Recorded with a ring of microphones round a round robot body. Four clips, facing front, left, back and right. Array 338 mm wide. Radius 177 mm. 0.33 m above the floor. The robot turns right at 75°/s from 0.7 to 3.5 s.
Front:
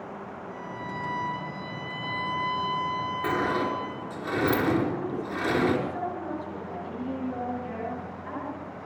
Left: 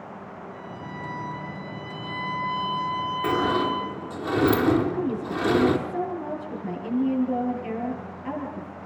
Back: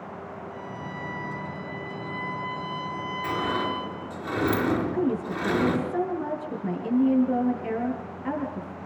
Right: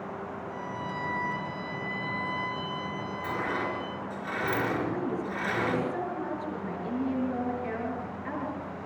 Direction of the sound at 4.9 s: 170° left.